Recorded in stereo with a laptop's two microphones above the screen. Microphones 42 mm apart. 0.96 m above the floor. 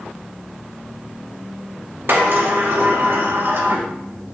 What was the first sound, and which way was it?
A sliding door, 70° right (ahead or behind).